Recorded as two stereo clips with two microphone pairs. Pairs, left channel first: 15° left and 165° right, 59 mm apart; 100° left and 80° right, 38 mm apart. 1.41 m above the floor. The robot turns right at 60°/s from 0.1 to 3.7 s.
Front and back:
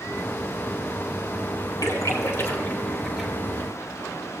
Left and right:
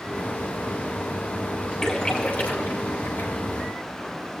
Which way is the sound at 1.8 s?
25° left.